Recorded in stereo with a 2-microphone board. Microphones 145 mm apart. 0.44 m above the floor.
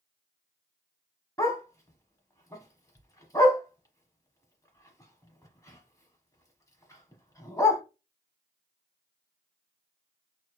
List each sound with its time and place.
1.4 s a dog barking: 20° left (ahead or behind), 1.0 m